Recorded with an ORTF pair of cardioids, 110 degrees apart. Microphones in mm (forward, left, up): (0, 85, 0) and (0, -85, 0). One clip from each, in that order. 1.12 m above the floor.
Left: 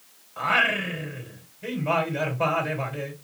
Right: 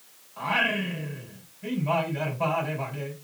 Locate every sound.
0.4 s singing: 55° left, 3.5 m